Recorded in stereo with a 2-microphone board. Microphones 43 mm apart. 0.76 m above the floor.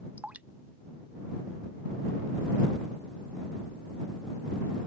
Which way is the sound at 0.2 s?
35° right (ahead or behind).